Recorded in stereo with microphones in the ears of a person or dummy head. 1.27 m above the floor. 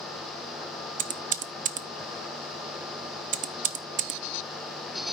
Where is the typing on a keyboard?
35° right (ahead or behind), 0.5 m.